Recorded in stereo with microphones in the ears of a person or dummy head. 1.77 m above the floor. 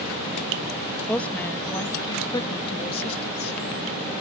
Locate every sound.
1.1 s a woman speaking: 5° left (ahead or behind); by 3.6 s 40° left (ahead or behind)